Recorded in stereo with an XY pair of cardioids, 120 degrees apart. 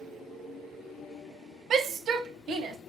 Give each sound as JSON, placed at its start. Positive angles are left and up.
{"t": 1.7, "sound": "a shout", "azimuth_deg": -45, "distance_m": 0.8}